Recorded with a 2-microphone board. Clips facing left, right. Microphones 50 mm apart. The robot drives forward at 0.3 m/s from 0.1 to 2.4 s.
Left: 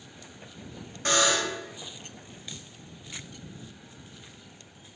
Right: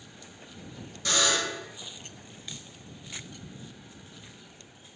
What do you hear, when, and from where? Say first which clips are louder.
1.1 s a buzzer: left 2 dB; 40° left (ahead or behind), 0.9 m; by 1.6 s 35° left (ahead or behind), 1.0 m